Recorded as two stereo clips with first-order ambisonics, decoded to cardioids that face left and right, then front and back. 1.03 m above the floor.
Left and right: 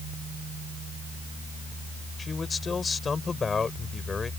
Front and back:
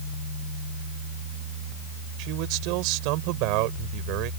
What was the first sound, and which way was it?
A man speaking, 160° left.